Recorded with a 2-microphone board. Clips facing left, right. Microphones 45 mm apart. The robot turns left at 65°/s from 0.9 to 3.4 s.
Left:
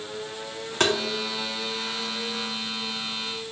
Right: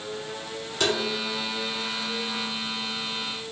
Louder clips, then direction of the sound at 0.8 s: Left 2 dB; 50° left (ahead or behind).